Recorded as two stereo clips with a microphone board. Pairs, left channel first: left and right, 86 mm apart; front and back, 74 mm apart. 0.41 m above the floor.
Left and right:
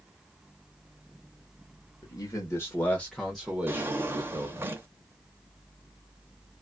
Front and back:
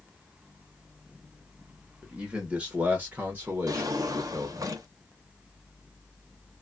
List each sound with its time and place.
2.0 s a man speaking: 105° left, 1.2 m; by 4.7 s 125° right, 1.2 m
3.7 s a drawer: 150° right, 0.7 m